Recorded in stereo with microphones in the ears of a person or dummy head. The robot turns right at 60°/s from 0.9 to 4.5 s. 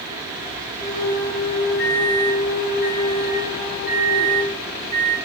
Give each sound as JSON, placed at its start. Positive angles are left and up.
{"t": 1.8, "sound": "a microwave", "azimuth_deg": 55, "distance_m": 3.5}